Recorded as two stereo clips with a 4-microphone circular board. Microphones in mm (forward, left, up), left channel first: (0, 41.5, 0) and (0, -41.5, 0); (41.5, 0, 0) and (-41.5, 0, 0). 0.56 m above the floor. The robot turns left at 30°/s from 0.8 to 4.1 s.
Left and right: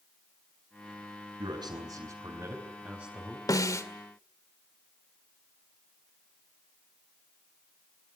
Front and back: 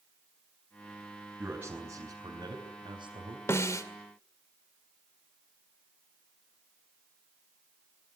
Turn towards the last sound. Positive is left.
turn(degrees=35)